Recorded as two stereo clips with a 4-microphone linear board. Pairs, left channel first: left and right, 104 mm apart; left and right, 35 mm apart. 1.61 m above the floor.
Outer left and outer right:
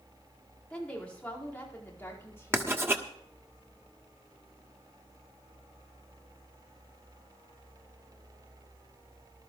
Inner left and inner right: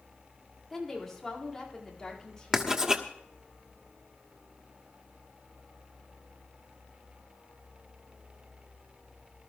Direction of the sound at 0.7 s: 10° left (ahead or behind).